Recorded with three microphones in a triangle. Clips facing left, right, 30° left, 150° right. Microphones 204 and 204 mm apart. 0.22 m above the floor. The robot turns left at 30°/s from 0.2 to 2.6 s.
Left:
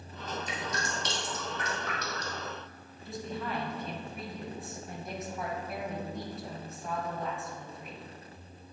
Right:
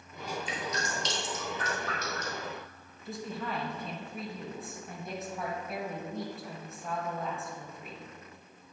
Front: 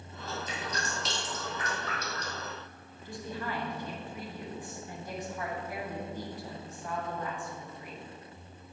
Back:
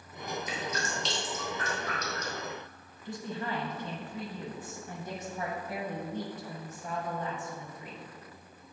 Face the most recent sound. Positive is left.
turn(degrees=180)